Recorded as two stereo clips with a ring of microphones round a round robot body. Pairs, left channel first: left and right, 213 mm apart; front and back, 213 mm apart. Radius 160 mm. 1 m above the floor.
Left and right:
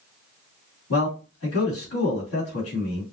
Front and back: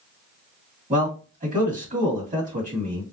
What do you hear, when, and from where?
0.9 s a man speaking: 125° left, 1.7 m